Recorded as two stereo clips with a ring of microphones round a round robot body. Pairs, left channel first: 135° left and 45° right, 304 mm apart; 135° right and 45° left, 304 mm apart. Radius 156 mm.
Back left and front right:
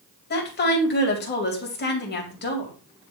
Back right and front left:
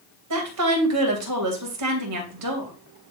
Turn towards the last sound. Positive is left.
turn(degrees=75)